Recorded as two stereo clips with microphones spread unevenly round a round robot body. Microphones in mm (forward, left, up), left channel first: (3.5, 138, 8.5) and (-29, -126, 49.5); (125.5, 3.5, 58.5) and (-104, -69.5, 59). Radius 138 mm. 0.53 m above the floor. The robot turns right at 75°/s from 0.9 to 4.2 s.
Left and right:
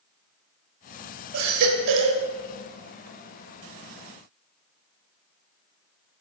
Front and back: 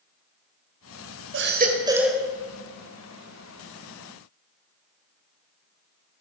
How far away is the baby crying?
About 2.5 m.